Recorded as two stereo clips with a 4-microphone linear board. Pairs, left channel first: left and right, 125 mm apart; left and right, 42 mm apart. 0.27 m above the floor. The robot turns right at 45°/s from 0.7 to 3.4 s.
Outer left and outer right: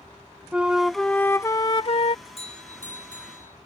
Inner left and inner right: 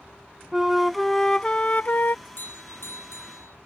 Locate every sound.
0.5 s a flute: 10° right; by 2.1 s 55° left
2.2 s a doorbell: 45° left; by 3.6 s 95° left